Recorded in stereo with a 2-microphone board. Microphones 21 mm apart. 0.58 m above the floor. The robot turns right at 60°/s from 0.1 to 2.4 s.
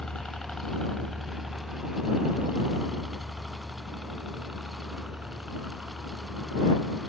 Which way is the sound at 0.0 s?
65° left (ahead or behind).